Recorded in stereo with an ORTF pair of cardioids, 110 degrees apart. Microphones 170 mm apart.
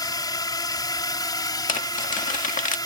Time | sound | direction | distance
0.0 | a drone | 25° left | ?
1.7 | crumpling | 50° left | ?